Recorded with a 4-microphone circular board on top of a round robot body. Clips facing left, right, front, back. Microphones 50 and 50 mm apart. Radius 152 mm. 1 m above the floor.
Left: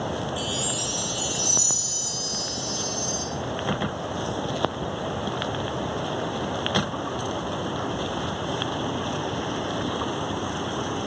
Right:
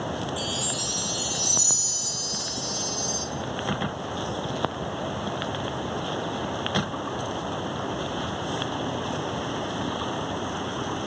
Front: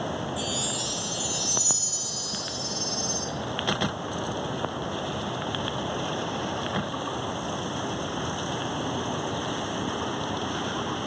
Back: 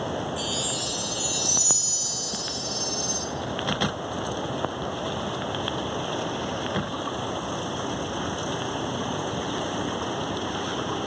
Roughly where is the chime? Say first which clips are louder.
Left 1 dB, back 1 dB; behind left.